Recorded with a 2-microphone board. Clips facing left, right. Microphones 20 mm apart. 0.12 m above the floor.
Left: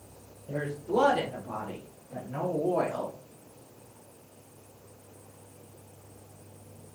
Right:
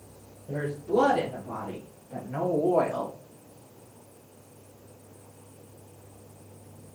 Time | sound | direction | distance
0.5 | a woman speaking | 5° left (ahead or behind) | 1.7 m